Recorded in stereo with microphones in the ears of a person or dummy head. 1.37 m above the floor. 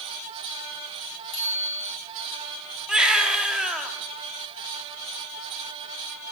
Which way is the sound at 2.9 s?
5° right (ahead or behind).